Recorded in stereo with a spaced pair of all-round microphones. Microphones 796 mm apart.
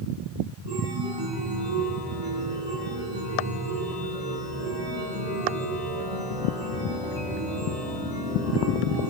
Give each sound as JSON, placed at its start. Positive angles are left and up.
{"t": 0.7, "sound": "a chime", "side_deg": -30, "distance_m": 8.5}